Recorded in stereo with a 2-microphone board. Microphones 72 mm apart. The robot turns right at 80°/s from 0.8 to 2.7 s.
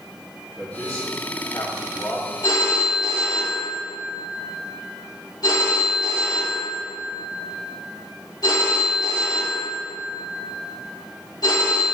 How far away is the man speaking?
About 2.0 m.